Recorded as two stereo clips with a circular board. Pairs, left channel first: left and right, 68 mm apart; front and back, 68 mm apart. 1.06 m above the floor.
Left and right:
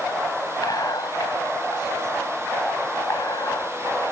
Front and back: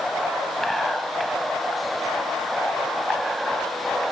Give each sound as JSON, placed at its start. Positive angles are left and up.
{"t": 0.6, "sound": "whispering", "azimuth_deg": 90}